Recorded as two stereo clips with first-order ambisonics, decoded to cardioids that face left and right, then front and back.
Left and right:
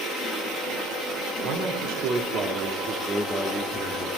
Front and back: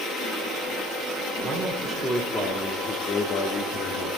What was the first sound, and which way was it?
A man speaking, 100° right.